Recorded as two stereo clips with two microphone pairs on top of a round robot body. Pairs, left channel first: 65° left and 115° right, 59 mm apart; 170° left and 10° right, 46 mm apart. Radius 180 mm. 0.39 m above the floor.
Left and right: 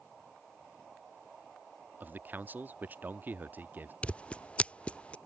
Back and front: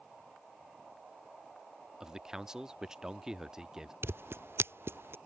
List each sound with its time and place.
2.0 s a man speaking: 75° right
4.0 s scissors: 5° left